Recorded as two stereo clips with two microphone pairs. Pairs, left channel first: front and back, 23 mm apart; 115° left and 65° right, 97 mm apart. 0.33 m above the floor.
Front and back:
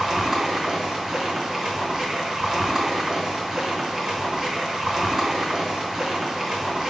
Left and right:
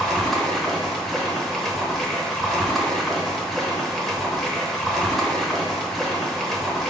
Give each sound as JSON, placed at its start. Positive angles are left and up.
{"t": 0.0, "sound": "running water", "azimuth_deg": -165, "distance_m": 0.8}